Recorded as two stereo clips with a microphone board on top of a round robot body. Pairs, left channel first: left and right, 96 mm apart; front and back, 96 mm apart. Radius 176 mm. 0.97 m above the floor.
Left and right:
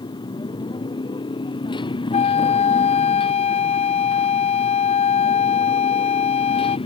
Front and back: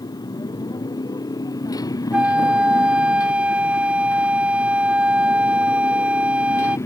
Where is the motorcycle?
50° left; by 6.9 s 60° left.